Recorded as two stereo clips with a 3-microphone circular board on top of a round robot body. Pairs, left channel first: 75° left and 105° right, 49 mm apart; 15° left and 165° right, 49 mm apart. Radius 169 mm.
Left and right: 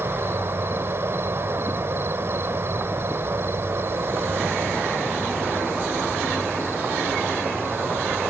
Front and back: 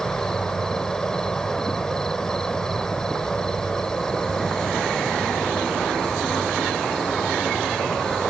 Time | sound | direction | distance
0.0 | an insect | 60° right | ?